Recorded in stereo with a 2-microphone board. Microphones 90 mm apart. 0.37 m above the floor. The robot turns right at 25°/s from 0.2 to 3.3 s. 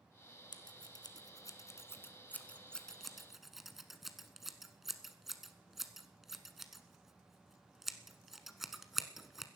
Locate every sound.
0.5 s scissors: 65° left (ahead or behind), 1.0 m; by 9.5 s 5° right (ahead or behind), 1.0 m